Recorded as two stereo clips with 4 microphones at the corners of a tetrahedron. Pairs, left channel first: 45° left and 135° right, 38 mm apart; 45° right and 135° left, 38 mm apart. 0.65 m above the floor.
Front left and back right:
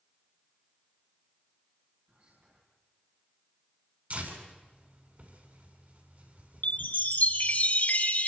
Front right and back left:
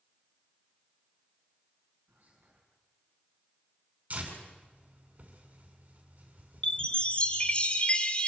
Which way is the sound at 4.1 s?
175° right.